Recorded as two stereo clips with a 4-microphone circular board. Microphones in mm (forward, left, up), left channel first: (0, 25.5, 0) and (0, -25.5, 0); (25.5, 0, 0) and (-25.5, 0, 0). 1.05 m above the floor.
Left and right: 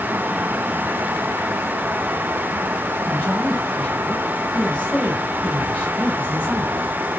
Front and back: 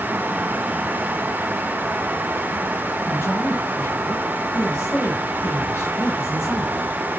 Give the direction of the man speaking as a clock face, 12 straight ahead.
11 o'clock.